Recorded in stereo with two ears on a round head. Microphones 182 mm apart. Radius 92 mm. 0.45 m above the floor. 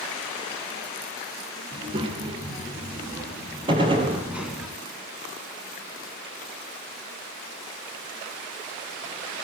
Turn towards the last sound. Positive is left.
turn(degrees=-25)  # may be behind; listen again after turning